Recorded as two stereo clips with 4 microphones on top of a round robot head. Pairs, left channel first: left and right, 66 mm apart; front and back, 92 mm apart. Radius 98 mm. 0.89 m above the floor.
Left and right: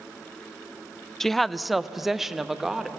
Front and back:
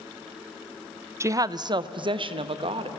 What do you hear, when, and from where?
1.2 s a woman speaking: 170° left, 0.6 m; by 2.9 s 175° right, 1.4 m